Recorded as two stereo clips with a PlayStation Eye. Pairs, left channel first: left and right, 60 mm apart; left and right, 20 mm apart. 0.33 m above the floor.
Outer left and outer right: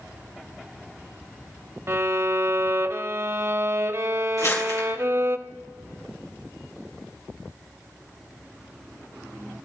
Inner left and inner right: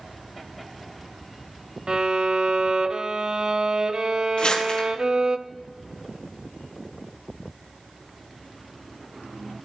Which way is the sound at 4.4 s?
70° left (ahead or behind).